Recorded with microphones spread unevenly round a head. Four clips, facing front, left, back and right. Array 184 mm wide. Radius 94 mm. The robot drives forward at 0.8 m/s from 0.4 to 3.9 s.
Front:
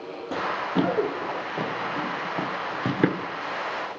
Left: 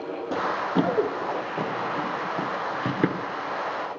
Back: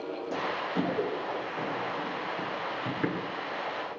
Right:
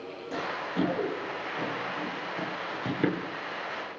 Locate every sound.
0.3 s running footsteps: 55° left, 4 m; by 3.2 s 15° left, 1.7 m